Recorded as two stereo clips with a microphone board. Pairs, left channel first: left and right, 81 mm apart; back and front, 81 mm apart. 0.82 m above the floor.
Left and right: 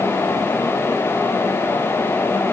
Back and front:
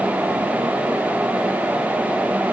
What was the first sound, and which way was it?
Only background noise.